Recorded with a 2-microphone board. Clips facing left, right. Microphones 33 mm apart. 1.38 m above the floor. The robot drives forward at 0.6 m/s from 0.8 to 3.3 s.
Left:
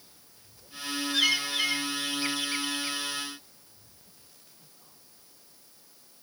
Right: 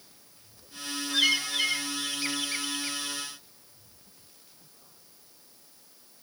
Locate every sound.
1.1 s a bird: 5° right (ahead or behind); by 3.2 s centre (ahead or behind)